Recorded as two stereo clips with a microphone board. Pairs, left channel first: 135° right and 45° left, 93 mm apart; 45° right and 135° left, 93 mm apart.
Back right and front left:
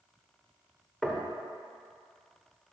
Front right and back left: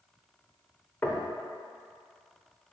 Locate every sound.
1.0 s knocking: 60° right, 0.9 m